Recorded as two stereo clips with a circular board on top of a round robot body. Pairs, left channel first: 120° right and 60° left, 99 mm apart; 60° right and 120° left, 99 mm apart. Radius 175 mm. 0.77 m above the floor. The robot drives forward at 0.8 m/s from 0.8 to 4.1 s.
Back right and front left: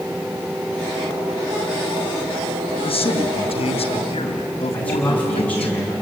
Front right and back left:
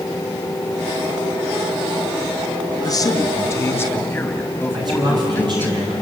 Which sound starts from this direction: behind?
A man speaking, at 4.7 s.